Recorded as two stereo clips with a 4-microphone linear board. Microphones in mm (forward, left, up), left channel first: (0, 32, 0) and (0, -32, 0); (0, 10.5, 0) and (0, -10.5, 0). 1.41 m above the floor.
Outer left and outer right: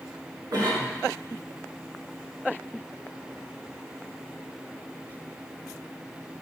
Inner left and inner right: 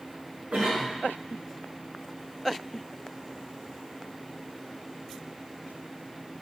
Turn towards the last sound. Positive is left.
turn(degrees=-80)